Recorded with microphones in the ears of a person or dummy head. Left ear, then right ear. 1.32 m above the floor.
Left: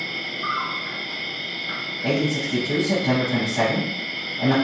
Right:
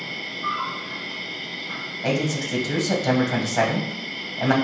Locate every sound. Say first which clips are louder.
0.0 s an insect: left 2 dB; 45° left (ahead or behind), 1.7 m
2.0 s a man speaking: left 1 dB; 75° right (ahead or behind), 1.2 m